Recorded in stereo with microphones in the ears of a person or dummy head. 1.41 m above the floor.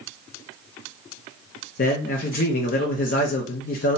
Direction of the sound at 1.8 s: 50° left (ahead or behind).